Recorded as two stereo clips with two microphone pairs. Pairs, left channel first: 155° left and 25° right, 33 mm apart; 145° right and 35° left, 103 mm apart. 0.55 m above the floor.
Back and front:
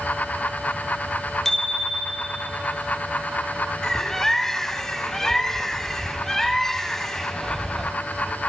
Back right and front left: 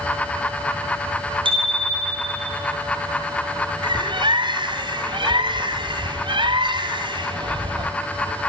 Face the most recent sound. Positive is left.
turn(degrees=75)